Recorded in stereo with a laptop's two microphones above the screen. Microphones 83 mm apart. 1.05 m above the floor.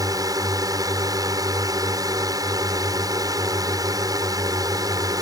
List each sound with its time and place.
0.0 s a drone: 50° right (ahead or behind)